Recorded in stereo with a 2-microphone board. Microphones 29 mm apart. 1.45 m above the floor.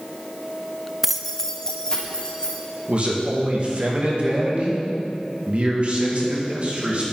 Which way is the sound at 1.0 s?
10° right (ahead or behind).